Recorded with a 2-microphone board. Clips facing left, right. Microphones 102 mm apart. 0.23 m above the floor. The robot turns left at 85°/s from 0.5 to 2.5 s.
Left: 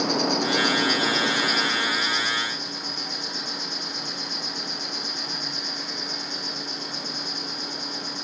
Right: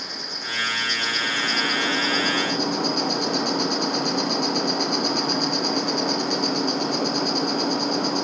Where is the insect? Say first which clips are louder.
Left 13 dB; 90° left, 2.5 m; by 8.2 s 80° right, 2.5 m.